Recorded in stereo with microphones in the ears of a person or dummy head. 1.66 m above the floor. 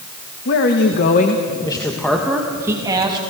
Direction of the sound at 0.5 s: 65° left (ahead or behind).